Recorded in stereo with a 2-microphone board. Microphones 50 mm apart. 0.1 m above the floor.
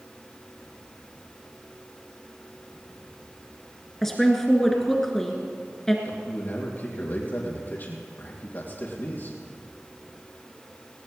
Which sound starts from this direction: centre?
A woman speaking, at 4.0 s.